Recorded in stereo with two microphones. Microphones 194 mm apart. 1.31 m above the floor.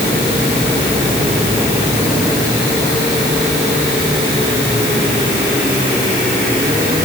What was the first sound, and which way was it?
Only background noise.